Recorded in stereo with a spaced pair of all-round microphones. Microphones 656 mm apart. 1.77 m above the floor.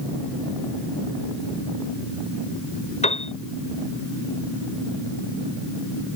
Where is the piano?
10° left (ahead or behind).